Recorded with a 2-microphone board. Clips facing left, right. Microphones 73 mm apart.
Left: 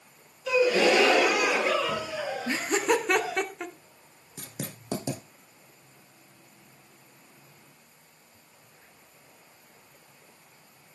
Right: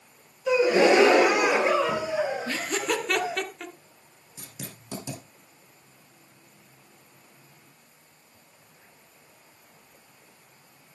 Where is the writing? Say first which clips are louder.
Left 4 dB; 55° left (ahead or behind), 2 m.